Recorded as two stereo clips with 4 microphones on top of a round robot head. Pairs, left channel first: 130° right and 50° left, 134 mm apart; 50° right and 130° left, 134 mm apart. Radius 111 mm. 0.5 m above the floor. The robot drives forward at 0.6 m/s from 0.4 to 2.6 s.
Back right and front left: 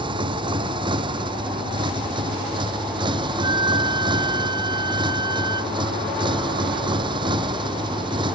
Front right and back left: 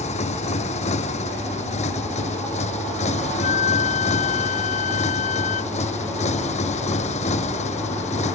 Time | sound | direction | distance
0.0 | a motorcycle | 10° right | ?
3.4 | a flute | 15° right | ?